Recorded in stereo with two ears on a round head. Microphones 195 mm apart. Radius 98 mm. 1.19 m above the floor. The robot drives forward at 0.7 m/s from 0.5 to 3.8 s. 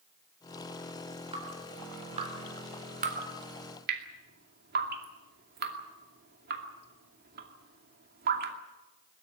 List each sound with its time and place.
1.3 s dripping: 25° right (ahead or behind), 4 m; by 8.6 s 45° right (ahead or behind), 2.5 m